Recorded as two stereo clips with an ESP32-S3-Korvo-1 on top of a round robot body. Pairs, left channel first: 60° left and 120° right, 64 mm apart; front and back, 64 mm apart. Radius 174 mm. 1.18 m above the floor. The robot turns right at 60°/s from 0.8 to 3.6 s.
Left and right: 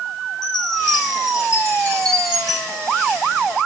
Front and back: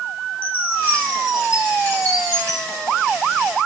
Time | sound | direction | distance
0.4 | a chime | 65° left | 4.5 m
2.5 | a dropped coin | 155° left | 3.5 m